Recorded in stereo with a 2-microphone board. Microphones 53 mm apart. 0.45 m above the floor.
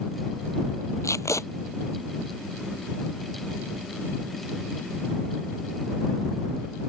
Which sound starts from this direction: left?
Tape being pulled, at 1.0 s.